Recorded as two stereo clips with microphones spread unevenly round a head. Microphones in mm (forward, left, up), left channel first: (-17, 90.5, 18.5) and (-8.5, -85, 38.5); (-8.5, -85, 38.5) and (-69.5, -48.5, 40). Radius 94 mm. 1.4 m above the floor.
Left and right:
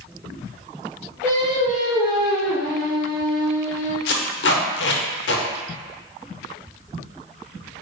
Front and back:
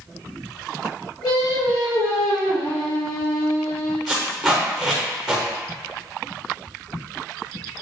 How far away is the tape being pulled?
About 0.6 m.